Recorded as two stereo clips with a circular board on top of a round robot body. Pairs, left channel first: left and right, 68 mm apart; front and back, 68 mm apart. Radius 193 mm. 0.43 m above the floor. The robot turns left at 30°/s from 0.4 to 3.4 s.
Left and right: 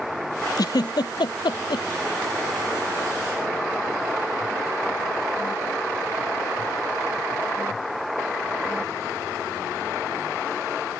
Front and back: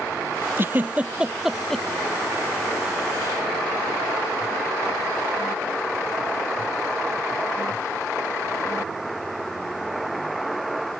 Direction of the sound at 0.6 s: 125° left.